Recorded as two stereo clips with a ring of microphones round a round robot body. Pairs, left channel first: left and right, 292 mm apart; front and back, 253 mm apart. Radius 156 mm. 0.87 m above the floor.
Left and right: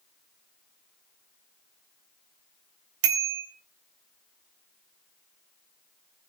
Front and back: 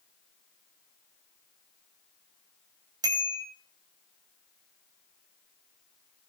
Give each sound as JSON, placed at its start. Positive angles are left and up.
{"t": 3.0, "sound": "a bicycle bell", "azimuth_deg": -100, "distance_m": 3.0}